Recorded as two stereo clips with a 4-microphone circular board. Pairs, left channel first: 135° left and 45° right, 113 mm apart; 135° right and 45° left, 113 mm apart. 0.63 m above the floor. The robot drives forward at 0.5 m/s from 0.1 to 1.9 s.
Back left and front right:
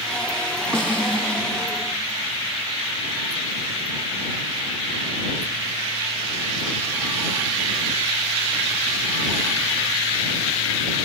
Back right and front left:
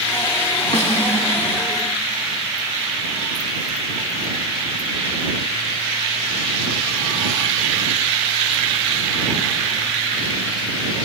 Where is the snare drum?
140° right, 4 m; by 1.3 s 145° right, 4.5 m.